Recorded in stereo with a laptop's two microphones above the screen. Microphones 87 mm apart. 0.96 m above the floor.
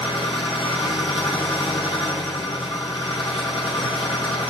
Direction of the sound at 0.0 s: 80° left.